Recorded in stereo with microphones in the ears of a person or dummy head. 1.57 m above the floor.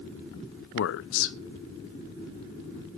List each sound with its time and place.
0.7 s a man speaking: 80° left, 0.7 m